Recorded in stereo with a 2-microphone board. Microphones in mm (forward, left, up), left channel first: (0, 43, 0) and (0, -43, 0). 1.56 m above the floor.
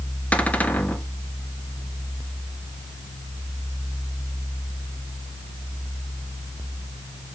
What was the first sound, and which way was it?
A cupboard door, 15° left (ahead or behind).